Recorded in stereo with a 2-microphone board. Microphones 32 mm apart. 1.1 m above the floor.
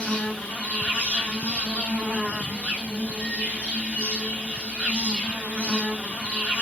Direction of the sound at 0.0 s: 40° left (ahead or behind).